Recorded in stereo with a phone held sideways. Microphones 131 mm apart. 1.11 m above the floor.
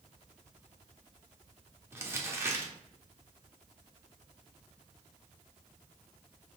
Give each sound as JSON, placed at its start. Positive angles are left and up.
{"t": 1.9, "sound": "crumpling", "side_deg": -20, "distance_m": 0.7}